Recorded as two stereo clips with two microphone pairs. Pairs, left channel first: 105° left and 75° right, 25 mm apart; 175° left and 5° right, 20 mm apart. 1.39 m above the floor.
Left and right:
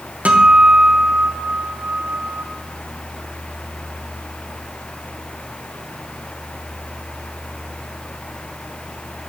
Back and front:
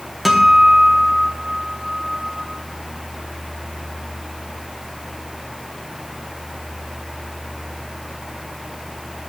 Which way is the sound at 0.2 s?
95° right.